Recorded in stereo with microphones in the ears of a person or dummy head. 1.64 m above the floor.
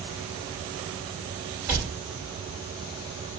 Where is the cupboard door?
10° right (ahead or behind), 3 m.